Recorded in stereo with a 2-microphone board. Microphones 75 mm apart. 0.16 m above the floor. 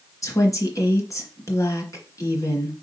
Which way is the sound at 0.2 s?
45° left (ahead or behind).